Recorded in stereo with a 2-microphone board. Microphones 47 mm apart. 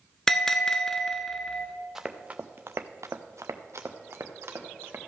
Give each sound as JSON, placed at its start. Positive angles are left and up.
{"t": 0.3, "sound": "a bell", "side_deg": 10, "distance_m": 0.7}
{"t": 1.9, "sound": "running footsteps", "side_deg": -10, "distance_m": 0.7}